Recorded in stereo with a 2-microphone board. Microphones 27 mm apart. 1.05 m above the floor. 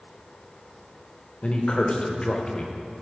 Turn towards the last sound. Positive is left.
turn(degrees=40)  # may be behind; listen again after turning